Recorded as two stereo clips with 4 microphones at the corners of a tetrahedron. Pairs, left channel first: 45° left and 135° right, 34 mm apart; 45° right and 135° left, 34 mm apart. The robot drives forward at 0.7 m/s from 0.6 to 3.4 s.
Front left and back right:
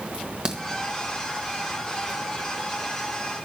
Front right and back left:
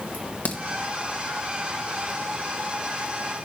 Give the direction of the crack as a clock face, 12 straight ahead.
3 o'clock.